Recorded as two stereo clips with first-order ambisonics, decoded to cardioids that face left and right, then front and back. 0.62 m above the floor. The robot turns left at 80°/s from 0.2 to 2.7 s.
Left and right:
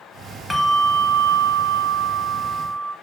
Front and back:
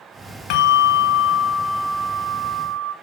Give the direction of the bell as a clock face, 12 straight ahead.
12 o'clock.